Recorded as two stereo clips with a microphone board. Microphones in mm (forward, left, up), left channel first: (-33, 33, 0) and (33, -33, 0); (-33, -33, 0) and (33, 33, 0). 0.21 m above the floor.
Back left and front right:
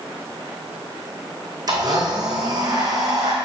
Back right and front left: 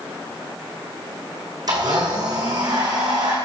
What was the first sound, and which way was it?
A blender, straight ahead.